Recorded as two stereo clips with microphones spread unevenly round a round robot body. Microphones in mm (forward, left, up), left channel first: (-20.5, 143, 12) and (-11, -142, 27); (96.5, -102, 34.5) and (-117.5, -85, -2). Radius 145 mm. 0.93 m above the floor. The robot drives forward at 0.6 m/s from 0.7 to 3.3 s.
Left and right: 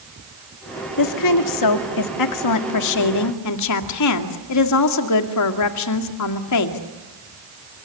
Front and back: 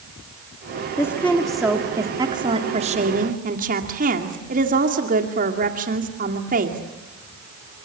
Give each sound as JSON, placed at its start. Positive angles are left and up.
{"t": 1.0, "sound": "a woman speaking", "azimuth_deg": 80, "distance_m": 2.0}